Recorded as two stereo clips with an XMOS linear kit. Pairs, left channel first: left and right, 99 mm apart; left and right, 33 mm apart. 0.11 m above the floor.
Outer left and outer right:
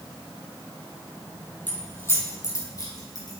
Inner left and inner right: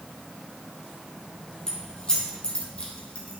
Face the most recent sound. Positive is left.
turn(degrees=40)  # may be behind; listen again after turning